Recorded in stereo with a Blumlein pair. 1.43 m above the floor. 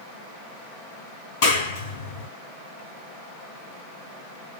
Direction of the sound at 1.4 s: 55° left.